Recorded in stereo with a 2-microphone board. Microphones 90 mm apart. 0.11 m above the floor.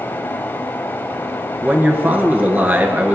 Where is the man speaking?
20° right (ahead or behind), 1.3 m.